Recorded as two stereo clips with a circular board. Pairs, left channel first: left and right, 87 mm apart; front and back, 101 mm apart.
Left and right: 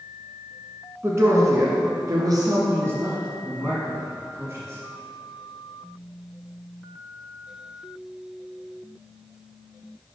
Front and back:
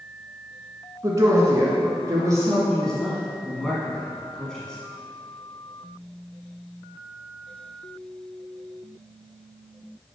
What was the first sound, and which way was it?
A woman speaking, 135° right.